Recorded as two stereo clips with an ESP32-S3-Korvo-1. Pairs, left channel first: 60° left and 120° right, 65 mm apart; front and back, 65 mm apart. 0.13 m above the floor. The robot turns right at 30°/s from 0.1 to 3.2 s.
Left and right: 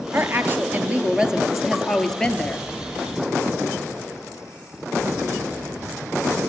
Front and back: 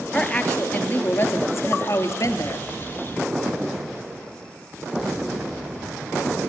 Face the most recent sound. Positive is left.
turn(degrees=15)